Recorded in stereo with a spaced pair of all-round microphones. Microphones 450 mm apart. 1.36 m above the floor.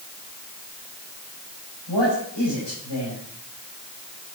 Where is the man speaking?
75° left (ahead or behind), 6 m.